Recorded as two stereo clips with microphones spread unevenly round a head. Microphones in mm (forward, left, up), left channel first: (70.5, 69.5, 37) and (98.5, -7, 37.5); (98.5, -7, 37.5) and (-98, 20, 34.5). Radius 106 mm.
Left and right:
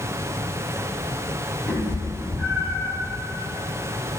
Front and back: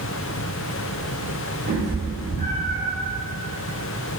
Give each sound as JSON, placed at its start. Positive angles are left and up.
{"t": 1.7, "sound": "a cat meowing", "azimuth_deg": -150, "distance_m": 1.5}